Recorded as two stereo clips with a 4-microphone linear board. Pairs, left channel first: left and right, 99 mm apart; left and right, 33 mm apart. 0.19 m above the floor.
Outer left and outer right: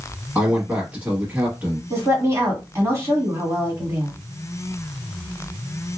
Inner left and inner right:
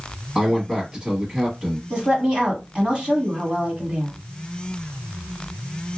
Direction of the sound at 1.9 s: 30° right (ahead or behind).